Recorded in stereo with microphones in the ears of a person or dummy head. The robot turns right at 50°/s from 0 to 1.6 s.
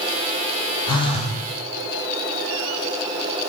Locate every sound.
0.9 s a phone buzzing: 25° left (ahead or behind), 0.5 m; by 1.4 s 45° left (ahead or behind), 0.5 m